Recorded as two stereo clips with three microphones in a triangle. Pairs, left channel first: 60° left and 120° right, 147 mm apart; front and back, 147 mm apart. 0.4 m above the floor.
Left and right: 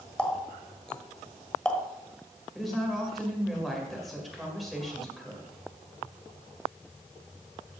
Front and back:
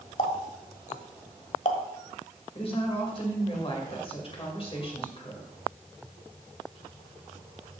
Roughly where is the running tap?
Ahead.